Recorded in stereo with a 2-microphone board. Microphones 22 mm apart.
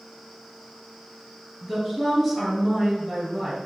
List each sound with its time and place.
1.6 s a woman speaking: 15° right (ahead or behind), 2.5 m